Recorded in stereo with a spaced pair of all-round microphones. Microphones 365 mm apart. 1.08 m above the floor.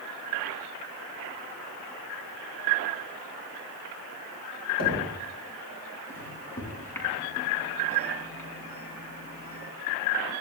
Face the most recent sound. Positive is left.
turn(degrees=5)  # may be behind; listen again after turning